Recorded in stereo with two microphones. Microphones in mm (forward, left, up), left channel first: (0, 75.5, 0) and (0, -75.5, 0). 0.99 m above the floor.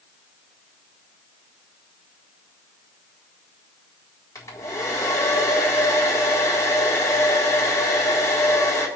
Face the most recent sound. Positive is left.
turn(degrees=20)  # may be behind; listen again after turning